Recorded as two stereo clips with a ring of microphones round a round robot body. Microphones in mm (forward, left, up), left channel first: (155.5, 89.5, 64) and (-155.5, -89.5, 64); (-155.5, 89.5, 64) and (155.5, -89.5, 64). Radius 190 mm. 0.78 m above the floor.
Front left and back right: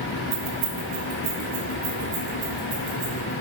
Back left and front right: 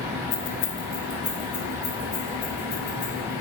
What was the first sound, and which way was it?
Keys jangling, 165° left.